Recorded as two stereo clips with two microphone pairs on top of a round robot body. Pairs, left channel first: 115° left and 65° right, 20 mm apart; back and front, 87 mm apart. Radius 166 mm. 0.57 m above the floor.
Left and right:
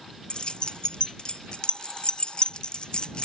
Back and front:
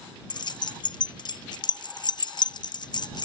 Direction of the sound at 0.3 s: 150° left.